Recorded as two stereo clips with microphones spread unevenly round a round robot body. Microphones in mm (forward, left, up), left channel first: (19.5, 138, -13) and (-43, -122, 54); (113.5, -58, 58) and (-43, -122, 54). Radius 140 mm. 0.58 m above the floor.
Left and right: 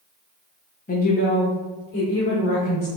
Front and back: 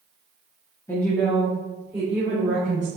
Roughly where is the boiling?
No boiling in this recording.